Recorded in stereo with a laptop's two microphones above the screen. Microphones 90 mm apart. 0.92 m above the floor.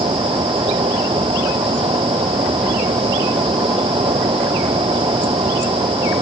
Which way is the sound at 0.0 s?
80° right.